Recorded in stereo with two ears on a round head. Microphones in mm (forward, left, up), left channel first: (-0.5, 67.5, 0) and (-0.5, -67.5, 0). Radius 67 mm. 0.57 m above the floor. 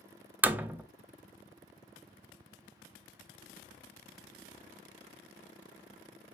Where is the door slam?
10° right (ahead or behind), 0.5 m.